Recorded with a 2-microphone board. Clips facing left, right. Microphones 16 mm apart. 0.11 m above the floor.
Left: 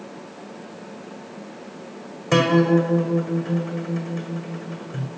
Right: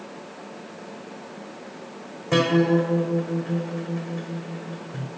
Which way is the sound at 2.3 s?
50° left (ahead or behind).